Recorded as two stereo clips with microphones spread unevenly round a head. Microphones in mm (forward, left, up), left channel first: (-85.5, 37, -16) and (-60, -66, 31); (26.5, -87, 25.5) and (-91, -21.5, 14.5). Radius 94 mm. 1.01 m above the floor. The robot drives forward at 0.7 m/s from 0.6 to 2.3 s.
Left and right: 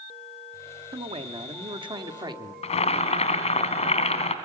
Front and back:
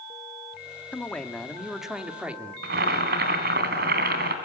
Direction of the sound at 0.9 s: 110° right.